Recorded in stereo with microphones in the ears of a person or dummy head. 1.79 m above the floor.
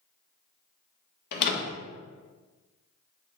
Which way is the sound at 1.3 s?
50° left (ahead or behind).